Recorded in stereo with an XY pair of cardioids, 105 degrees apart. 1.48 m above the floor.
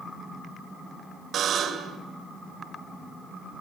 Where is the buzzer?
55° right, 3 m.